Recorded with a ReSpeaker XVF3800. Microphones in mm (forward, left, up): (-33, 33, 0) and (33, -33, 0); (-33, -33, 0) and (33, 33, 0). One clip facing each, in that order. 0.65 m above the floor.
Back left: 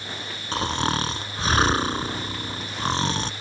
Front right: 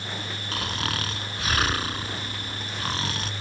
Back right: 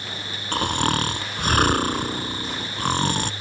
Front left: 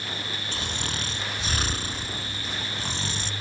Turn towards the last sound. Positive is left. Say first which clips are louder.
# back left 7 dB, back right 14 dB
turn(degrees=-165)